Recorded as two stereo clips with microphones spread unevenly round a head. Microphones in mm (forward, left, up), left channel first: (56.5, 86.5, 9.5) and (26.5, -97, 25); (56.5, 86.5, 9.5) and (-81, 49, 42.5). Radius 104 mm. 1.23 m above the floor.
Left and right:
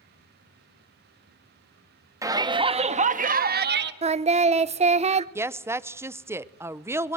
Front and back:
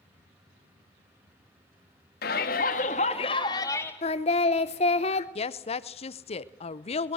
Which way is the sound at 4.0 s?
40° right.